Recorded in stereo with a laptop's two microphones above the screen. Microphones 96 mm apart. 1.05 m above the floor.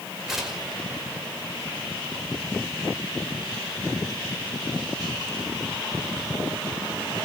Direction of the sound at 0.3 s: 5° right (ahead or behind).